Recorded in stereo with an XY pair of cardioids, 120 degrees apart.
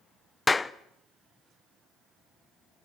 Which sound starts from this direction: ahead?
A clap, at 0.5 s.